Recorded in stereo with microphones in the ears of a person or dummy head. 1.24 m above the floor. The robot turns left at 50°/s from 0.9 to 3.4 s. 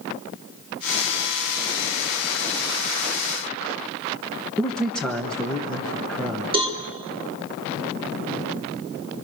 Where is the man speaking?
Centre (ahead or behind), 1.2 m.